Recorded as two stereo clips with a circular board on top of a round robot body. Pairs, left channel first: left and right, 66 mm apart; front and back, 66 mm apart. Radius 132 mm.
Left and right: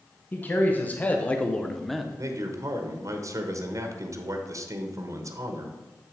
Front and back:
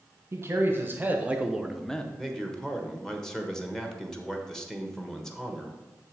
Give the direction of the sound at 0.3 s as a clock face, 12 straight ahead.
7 o'clock.